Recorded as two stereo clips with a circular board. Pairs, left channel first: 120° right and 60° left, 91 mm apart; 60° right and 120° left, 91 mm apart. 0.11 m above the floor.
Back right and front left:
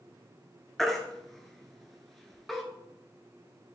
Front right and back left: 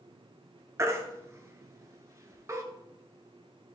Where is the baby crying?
155° left, 0.8 m.